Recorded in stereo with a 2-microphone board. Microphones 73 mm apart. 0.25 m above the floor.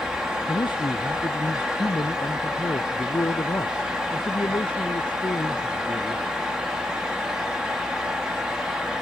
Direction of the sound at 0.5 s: 75° left (ahead or behind).